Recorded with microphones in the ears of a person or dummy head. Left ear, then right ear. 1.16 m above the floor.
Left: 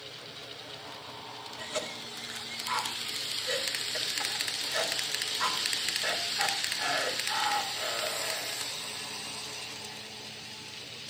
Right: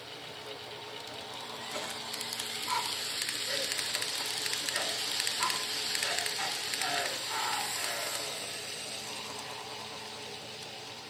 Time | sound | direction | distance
1.6 | a cough | centre (ahead or behind) | 3.5 m